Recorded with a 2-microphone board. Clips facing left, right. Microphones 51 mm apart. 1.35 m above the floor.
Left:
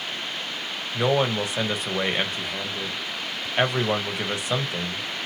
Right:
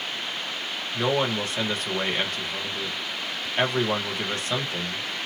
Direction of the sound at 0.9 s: 15° left (ahead or behind).